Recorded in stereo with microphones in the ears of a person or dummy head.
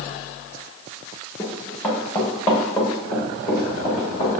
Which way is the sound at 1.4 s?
15° left (ahead or behind).